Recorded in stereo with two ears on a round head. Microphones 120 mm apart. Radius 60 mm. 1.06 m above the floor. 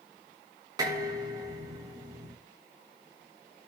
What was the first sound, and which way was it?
Dishes clattering, 30° right (ahead or behind).